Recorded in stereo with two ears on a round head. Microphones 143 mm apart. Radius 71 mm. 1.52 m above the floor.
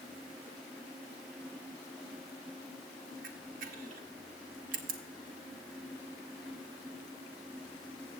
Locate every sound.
3.2 s a camera shutter: 55° right (ahead or behind), 0.9 m